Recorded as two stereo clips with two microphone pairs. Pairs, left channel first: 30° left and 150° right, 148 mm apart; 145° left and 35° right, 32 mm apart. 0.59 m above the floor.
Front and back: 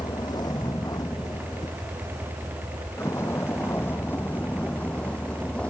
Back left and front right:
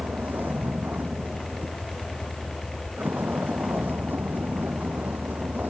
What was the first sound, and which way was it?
A vehicle, 30° right.